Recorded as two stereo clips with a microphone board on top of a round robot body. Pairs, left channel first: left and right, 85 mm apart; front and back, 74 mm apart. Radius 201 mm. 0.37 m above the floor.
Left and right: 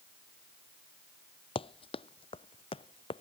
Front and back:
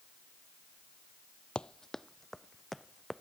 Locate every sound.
1.6 s running footsteps: 75° left; by 3.2 s 90° left